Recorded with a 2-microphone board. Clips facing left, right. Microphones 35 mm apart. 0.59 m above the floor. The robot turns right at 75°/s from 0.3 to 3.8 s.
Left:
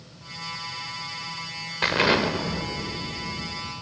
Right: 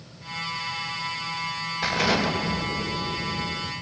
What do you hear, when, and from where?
1.8 s an explosion: 120° left, 2.5 m; by 3.7 s 95° right, 2.5 m